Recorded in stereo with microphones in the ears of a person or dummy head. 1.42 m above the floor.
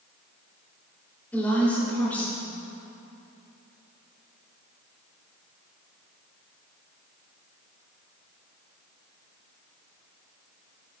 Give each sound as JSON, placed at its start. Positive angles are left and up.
{"t": 1.3, "sound": "a woman speaking", "side_deg": 10, "distance_m": 1.7}